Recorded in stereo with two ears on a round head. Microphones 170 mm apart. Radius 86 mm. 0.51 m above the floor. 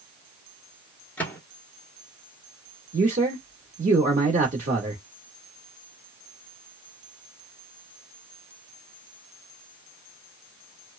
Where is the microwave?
10° left (ahead or behind), 0.7 m.